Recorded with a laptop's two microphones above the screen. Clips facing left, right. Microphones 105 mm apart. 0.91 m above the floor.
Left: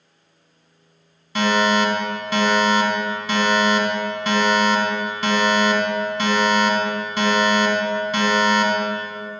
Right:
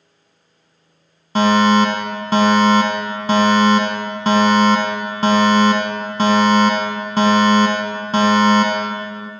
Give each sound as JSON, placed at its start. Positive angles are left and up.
{"t": 1.4, "sound": "a fire alarm", "side_deg": -40, "distance_m": 1.6}